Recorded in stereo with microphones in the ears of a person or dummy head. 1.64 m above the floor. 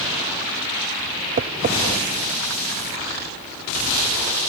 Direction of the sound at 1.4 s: 35° right (ahead or behind).